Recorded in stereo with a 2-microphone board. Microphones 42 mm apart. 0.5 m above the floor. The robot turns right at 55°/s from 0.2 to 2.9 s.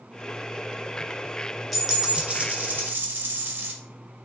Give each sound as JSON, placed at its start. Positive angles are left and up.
{"t": 1.7, "sound": "a dropped coin", "azimuth_deg": 175, "distance_m": 0.5}